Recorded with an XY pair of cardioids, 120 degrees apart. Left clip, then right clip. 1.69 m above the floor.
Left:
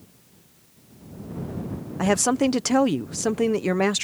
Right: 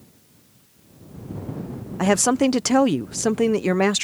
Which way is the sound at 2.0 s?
15° right.